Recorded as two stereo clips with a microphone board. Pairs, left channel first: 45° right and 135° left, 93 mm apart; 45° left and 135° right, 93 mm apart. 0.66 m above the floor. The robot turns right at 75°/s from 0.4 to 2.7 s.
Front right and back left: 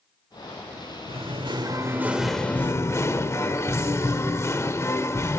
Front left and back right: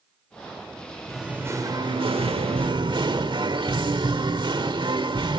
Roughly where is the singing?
Behind left.